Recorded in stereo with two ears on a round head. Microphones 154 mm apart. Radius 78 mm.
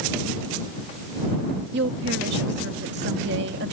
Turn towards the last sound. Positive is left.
turn(degrees=-70)  # may be behind; listen again after turning